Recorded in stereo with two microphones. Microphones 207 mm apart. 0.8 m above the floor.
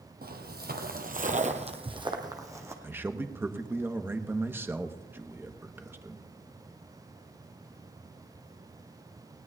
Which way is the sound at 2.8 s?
10° right (ahead or behind).